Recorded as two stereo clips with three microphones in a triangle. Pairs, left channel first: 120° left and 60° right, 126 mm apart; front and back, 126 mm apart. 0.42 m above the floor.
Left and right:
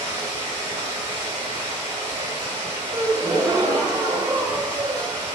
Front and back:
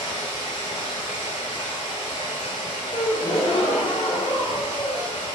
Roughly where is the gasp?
Ahead.